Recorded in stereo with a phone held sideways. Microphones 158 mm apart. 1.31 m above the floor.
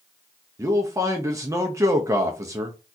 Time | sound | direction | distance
0.6 | a man speaking | 20° right (ahead or behind) | 0.6 m